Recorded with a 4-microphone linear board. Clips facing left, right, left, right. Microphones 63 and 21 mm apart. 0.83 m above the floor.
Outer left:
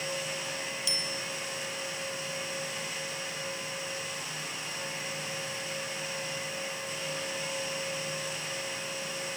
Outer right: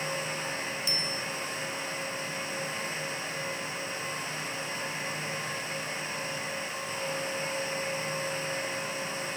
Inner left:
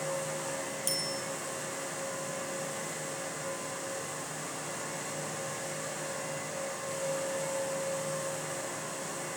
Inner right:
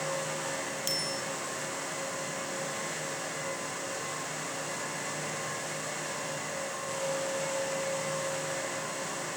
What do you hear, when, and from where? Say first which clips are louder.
0.9 s a bicycle bell: outer right 2 dB, inner right 1 dB; 40° right (ahead or behind), 3.5 m